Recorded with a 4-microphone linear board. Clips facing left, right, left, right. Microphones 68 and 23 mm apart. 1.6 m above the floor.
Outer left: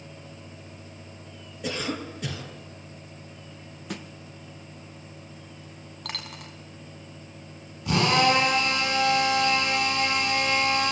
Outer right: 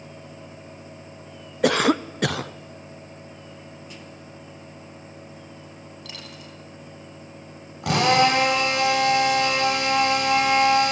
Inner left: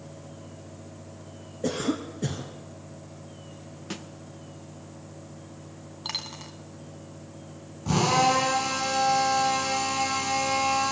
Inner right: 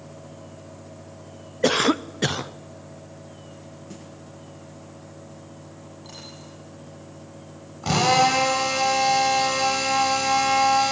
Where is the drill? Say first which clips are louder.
Outer right 3 dB, inner right 4 dB; 80° right, 8.5 m.